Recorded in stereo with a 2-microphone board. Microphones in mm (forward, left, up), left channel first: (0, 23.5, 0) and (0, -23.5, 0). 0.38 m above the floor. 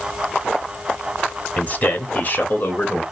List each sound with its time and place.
1.6 s a man speaking: 40° left (ahead or behind), 1.3 m; by 3.0 s 45° left (ahead or behind), 1.1 m